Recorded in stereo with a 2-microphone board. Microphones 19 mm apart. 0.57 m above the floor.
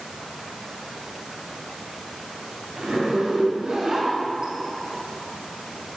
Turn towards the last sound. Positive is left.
turn(degrees=-50)  # may be behind; listen again after turning